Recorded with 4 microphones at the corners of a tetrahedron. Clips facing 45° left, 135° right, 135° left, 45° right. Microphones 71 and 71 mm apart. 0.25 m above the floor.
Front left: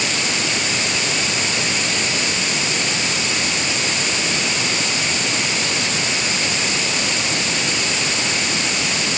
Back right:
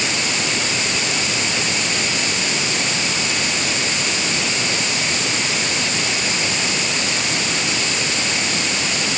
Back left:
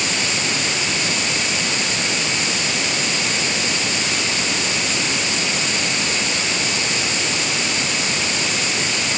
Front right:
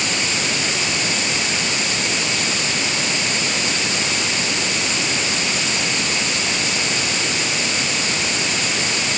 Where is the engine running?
No engine running in this recording.